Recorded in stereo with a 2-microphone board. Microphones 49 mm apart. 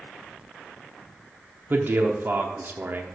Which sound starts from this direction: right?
A man speaking, at 1.7 s.